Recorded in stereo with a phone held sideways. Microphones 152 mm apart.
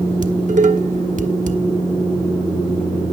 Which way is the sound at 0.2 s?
60° right (ahead or behind).